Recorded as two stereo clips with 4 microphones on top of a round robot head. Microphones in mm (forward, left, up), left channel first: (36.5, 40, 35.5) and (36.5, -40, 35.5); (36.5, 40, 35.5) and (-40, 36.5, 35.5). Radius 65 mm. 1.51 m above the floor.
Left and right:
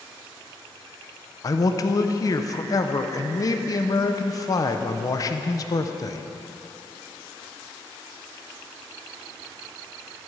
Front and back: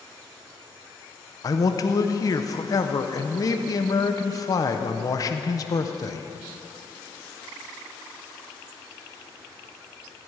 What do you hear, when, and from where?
1.4 s a man speaking: 45° left, 0.9 m